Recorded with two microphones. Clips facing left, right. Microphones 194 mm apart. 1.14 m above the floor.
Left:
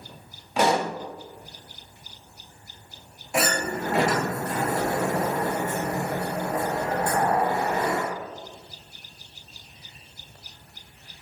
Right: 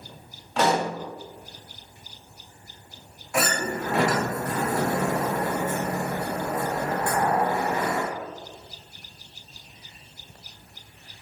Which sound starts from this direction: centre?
A pop, at 0.6 s.